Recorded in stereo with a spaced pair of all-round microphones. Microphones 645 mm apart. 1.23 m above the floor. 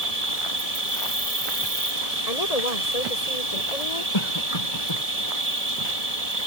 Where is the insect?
65° right (ahead or behind).